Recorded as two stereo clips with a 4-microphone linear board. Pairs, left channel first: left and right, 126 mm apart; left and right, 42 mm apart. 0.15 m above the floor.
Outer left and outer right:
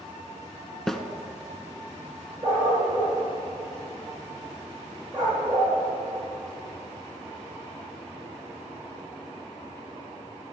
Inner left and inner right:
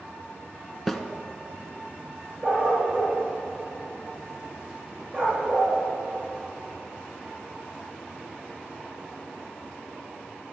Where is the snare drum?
Centre (ahead or behind), 0.8 m.